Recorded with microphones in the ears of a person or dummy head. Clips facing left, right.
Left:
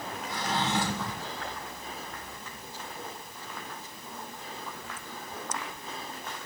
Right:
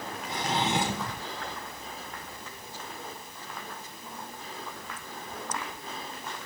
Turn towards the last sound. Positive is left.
turn(degrees=-15)  # may be behind; listen again after turning